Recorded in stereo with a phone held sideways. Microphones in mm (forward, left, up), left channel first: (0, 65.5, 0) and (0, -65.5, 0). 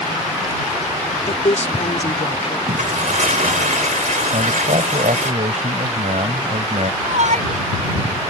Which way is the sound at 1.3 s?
60° left (ahead or behind).